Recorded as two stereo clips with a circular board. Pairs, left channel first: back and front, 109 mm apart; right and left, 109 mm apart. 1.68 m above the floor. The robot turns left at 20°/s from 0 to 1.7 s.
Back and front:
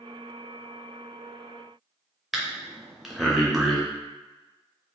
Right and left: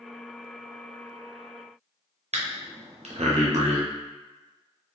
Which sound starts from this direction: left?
Breathing, at 2.3 s.